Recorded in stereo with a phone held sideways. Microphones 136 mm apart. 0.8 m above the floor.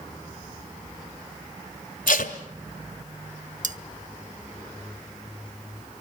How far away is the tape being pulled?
About 1.8 m.